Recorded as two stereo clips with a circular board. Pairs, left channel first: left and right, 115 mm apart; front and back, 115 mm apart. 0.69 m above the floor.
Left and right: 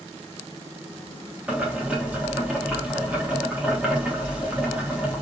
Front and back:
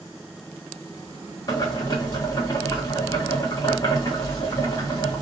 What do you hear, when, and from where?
1.5 s boiling: 20° right, 0.9 m